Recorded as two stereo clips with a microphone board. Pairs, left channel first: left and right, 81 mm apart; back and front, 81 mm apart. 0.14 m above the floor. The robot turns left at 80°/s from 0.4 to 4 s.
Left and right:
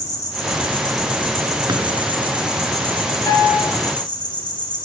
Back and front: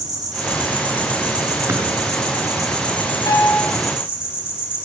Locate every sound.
0.0 s an insect: 40° left, 10 m; by 4.8 s 110° left, 10 m
1.7 s a drawer: 55° right, 8.5 m; by 1.8 s 70° right, 8.5 m
3.3 s a piano: 140° left, 3 m; by 3.7 s 105° left, 3 m